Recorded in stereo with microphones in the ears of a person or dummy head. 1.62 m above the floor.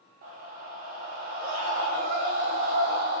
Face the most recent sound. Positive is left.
turn(degrees=-50)  # may be behind; listen again after turning